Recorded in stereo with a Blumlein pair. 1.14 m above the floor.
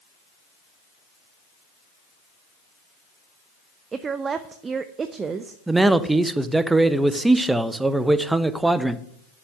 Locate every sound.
3.9 s a woman speaking: 20° right, 0.7 m
5.7 s a man speaking: 10° right, 0.9 m